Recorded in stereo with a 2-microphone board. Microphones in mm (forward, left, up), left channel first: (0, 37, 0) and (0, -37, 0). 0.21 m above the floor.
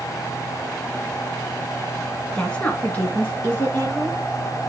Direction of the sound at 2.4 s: 10° left (ahead or behind).